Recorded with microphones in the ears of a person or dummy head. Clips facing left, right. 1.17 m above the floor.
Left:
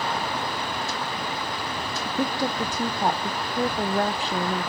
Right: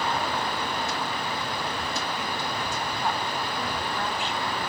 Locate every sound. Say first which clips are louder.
2.0 s a woman speaking: left 6 dB; 30° left (ahead or behind), 0.7 m